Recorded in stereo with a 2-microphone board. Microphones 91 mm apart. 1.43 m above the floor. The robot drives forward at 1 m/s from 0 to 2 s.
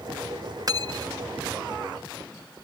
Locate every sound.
0.7 s cutlery clinking: 45° right (ahead or behind); by 1.2 s 40° right (ahead or behind)